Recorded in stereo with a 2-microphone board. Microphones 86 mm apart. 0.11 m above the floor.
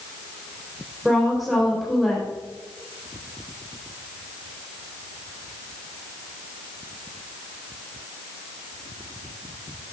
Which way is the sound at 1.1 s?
Centre (ahead or behind).